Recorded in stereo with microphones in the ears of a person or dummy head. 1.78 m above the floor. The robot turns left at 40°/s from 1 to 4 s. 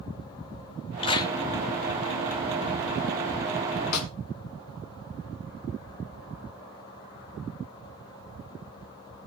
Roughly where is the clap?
Left.